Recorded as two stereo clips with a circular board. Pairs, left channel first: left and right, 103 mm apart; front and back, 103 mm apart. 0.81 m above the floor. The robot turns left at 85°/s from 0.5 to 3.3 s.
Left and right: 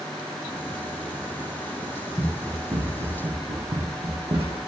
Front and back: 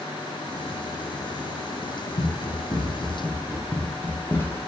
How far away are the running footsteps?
About 3 m.